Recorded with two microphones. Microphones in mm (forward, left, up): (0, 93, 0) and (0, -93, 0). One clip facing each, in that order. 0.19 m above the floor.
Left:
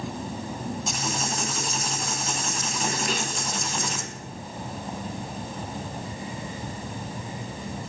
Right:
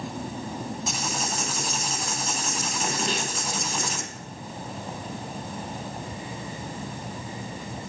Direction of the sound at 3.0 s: 25° right (ahead or behind).